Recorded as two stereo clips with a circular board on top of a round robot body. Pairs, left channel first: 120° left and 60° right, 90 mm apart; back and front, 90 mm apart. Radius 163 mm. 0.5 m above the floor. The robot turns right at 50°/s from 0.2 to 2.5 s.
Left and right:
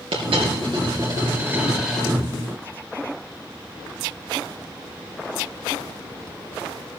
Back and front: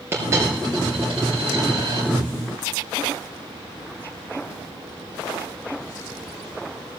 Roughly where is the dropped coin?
Ahead right.